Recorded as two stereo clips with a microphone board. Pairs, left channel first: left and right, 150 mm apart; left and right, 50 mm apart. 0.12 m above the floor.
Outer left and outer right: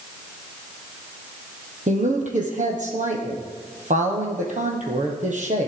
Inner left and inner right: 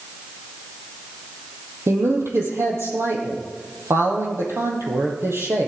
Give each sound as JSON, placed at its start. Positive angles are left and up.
{"t": 1.9, "sound": "a woman speaking", "side_deg": -55, "distance_m": 3.5}